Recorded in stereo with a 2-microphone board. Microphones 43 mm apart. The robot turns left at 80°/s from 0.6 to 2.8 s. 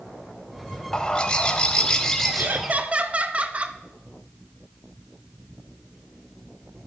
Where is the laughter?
100° right, 0.7 m; by 3.8 s 135° right, 0.7 m.